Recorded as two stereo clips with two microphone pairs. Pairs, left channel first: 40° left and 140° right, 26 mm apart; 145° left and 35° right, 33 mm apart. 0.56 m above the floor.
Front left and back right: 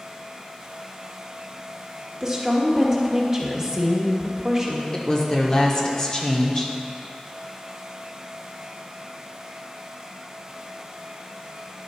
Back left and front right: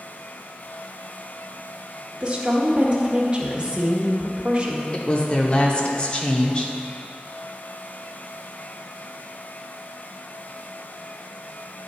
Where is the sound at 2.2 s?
85° right, 1.3 m.